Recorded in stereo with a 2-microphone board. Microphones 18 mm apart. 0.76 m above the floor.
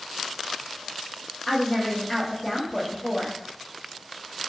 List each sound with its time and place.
1.5 s a woman speaking: 55° left (ahead or behind), 1.0 m